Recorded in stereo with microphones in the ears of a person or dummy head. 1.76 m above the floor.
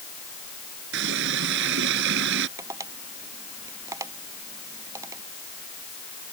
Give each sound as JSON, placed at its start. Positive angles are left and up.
{"t": 0.9, "sound": "a running tap", "side_deg": -60}
{"t": 2.6, "sound": "tapping", "side_deg": -15}